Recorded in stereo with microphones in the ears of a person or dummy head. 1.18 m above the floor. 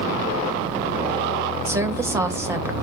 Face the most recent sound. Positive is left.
turn(degrees=-15)  # may be behind; listen again after turning